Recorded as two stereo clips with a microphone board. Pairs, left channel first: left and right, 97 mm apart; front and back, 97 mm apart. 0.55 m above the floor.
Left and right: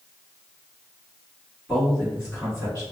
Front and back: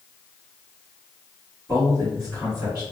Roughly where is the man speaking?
Behind.